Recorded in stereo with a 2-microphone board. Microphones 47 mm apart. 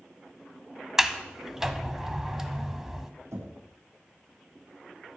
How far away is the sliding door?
About 1.2 m.